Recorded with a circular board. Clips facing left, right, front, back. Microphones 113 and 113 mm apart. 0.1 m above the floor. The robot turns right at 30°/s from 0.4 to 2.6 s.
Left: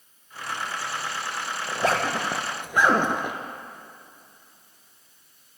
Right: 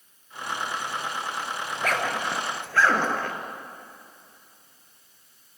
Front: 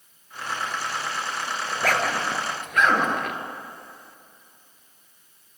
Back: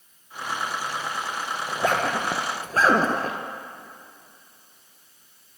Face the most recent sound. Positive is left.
turn(degrees=150)